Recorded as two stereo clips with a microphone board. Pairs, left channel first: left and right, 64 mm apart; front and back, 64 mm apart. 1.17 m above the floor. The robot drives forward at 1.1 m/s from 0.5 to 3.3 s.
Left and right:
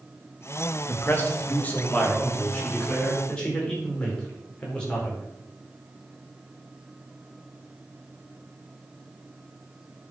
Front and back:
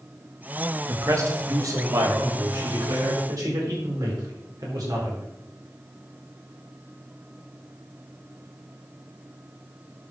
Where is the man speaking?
140° left, 1.9 m; by 5.2 s 165° left, 4.5 m.